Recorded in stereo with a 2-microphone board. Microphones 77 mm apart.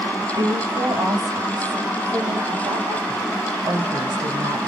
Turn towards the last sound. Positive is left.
turn(degrees=-75)  # may be behind; listen again after turning